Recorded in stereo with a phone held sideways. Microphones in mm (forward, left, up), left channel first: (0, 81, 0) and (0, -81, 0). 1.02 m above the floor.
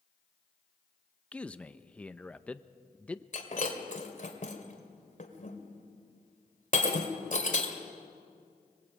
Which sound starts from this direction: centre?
A man speaking, at 1.3 s.